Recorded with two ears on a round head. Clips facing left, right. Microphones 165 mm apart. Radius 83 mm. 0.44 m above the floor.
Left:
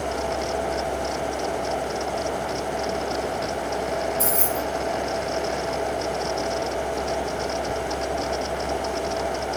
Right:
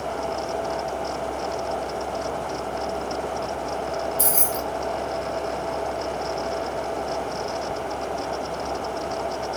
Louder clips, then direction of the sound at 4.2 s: Left 2 dB; 60° right (ahead or behind).